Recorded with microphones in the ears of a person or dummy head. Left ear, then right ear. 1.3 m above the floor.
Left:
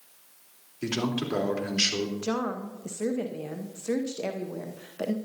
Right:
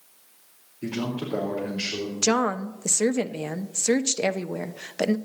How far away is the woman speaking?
About 0.6 m.